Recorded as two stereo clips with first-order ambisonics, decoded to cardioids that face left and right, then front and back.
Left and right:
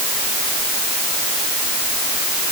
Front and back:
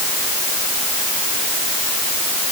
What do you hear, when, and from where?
Only background noise.